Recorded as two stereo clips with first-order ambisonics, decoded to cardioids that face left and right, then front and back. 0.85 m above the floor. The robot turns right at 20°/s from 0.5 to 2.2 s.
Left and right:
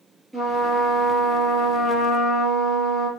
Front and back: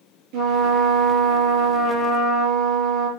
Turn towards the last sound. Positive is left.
turn(degrees=-140)